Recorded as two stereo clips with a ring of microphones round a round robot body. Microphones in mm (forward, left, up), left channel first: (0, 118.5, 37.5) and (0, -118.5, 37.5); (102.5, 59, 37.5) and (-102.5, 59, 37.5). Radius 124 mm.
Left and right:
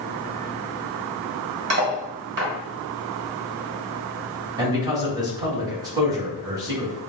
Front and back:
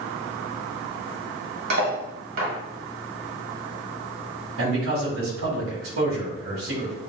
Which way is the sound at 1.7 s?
135° right.